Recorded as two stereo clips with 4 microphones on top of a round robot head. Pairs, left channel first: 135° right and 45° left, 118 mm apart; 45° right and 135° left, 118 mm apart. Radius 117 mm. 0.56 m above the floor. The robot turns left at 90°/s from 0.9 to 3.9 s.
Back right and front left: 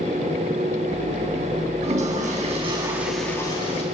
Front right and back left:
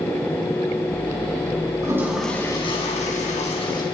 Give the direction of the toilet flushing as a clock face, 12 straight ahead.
9 o'clock.